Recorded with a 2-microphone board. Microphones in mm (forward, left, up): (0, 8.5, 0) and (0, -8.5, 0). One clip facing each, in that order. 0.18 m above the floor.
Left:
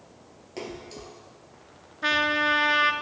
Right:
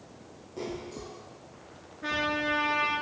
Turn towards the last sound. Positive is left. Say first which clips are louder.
# left 6 dB
turn(degrees=65)  # may be behind; listen again after turning